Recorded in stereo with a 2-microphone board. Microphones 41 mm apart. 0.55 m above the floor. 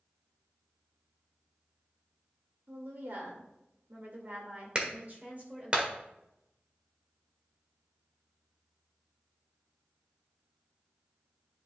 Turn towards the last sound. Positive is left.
turn(degrees=-25)  # may be behind; listen again after turning